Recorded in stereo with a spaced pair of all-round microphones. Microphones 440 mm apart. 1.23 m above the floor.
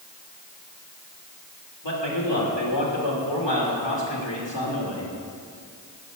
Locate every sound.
1.8 s a man speaking: 75° left (ahead or behind), 2.5 m